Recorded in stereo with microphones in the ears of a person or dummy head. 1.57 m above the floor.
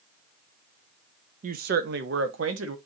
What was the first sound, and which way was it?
A woman speaking, 40° right (ahead or behind).